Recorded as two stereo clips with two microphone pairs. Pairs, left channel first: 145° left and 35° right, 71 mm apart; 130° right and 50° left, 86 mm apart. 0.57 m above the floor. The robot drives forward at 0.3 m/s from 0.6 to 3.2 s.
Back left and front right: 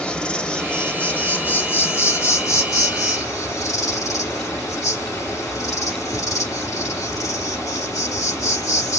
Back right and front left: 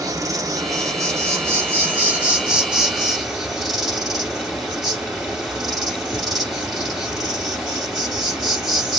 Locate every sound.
0.0 s an insect: 75° left, 0.8 m; by 9.0 s 140° left, 1.0 m